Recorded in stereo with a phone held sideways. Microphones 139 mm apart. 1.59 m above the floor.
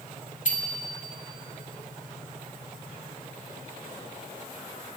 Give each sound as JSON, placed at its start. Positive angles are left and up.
{"t": 0.5, "sound": "a bicycle bell", "side_deg": 60, "distance_m": 3.5}